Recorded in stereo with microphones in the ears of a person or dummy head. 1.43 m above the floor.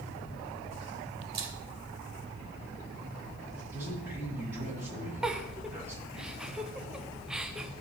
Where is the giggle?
5° right (ahead or behind), 0.7 m.